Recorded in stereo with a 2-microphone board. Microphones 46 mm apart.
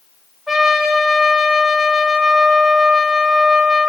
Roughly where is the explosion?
I don't hear an explosion.